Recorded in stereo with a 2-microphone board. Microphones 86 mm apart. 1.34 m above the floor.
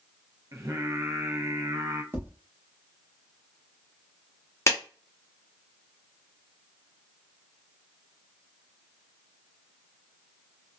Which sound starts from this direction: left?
A clap, at 4.7 s.